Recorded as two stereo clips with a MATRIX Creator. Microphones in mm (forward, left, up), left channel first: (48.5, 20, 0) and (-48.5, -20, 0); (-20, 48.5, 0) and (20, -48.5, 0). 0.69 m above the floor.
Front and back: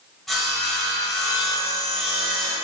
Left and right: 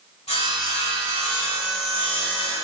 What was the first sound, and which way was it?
Sawing, 110° left.